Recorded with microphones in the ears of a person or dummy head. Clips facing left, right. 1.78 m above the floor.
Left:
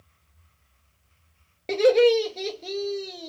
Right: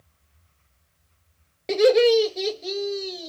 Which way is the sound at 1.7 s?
5° right (ahead or behind).